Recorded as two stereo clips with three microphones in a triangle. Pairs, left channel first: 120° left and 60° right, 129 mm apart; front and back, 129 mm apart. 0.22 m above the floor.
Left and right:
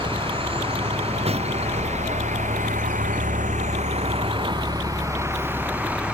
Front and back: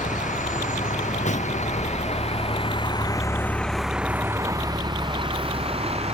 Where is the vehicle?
10° right; by 6.1 s 140° right.